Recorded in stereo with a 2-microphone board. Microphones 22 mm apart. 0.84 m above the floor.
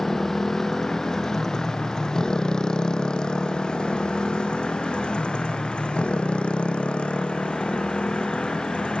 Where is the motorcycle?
15° left (ahead or behind); by 9.0 s 60° left (ahead or behind).